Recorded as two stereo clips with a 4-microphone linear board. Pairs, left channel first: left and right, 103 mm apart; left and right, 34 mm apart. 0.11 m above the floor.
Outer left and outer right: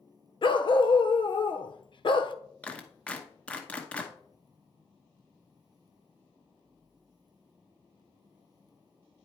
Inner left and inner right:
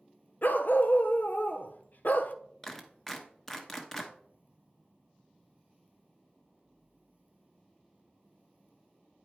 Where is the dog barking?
55° left (ahead or behind), 0.6 m.